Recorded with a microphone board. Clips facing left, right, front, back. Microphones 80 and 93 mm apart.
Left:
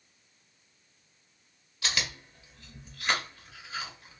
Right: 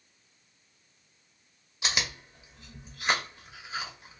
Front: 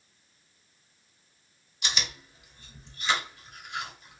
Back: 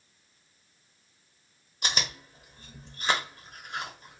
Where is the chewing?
155° right, 0.9 m.